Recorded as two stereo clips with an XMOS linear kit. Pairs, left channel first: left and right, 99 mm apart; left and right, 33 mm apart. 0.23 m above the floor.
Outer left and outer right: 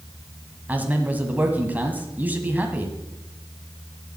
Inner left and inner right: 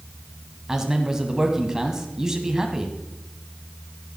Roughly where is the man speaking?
Centre.